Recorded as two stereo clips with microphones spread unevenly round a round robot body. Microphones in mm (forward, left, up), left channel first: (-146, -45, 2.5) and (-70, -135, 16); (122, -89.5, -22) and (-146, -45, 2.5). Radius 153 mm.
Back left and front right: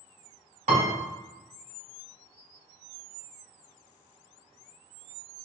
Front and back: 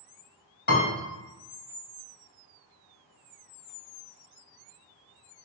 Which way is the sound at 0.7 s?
60° right.